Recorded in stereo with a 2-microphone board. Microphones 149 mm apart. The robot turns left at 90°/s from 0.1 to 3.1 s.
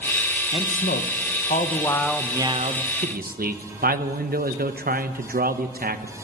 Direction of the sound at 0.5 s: 145° left.